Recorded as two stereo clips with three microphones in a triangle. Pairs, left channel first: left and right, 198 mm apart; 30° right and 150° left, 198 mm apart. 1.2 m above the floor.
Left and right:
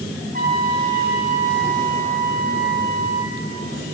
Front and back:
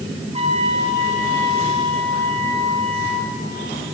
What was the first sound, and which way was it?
A trumpet, 90° left.